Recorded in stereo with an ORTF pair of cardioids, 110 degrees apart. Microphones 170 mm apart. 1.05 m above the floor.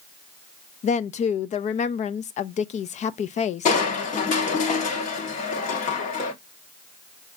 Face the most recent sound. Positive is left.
turn(degrees=50)